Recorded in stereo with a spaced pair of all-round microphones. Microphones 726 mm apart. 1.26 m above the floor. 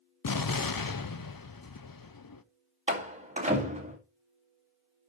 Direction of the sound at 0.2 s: 35° left (ahead or behind).